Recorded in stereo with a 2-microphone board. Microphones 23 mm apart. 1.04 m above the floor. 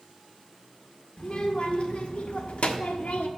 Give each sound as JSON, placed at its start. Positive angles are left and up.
{"t": 1.2, "sound": "a child speaking", "side_deg": 50, "distance_m": 1.9}